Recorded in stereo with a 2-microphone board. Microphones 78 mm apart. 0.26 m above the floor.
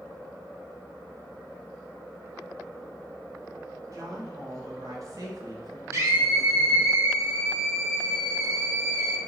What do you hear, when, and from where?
3.9 s a woman speaking: 50° right (ahead or behind), 1.7 m; by 6.9 s 40° right (ahead or behind), 1.7 m
5.9 s a scream: 40° right (ahead or behind), 1.2 m